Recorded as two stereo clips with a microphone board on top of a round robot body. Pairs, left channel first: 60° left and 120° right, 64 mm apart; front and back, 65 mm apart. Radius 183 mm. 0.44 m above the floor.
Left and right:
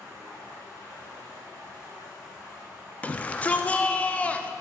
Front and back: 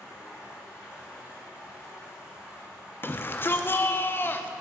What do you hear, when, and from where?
0.0 s running water: 110° right, 4.5 m
3.0 s a shout: 10° left, 1.1 m